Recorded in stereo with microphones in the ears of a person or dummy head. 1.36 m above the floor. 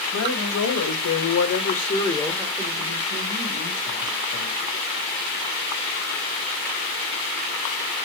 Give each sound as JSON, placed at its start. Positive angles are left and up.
{"t": 0.1, "sound": "a woman speaking", "side_deg": 80, "distance_m": 2.0}